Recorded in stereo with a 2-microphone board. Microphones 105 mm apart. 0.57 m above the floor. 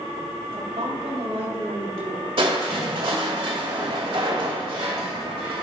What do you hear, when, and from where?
0.5 s a woman speaking: 70° right (ahead or behind), 3 m
2.4 s crushing: 65° right (ahead or behind), 2.5 m